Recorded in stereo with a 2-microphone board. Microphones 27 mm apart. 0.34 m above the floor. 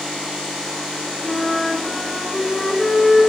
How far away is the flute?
About 0.9 m.